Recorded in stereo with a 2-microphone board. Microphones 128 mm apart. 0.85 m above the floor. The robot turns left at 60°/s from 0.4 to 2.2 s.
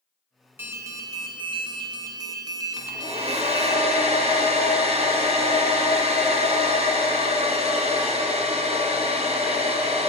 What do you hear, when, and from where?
0.6 s an alarm: 30° right, 1.1 m; by 3.8 s 125° right, 1.1 m
2.8 s a hair dryer: 65° right (ahead or behind), 1.8 m